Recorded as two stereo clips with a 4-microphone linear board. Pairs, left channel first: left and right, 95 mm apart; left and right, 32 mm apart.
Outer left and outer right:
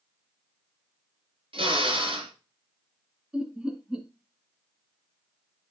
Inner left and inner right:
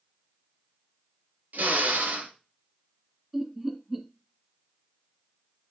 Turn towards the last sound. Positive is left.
turn(degrees=-10)  # may be behind; listen again after turning